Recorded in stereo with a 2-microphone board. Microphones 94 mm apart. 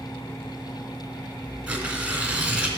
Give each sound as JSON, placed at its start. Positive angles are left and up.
{"t": 1.7, "sound": "tearing paper", "side_deg": -10, "distance_m": 1.4}